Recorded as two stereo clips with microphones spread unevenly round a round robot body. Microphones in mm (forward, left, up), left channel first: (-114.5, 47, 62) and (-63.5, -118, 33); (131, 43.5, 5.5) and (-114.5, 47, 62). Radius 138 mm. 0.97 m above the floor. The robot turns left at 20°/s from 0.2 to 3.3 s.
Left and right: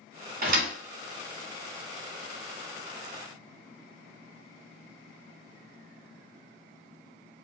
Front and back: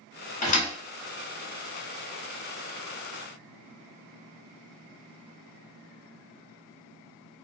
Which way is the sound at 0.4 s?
65° right.